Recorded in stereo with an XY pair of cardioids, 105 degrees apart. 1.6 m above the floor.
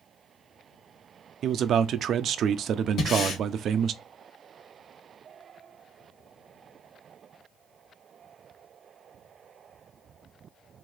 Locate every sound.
1.4 s a man speaking: 60° right, 0.7 m
3.0 s breathing: 60° left, 1.9 m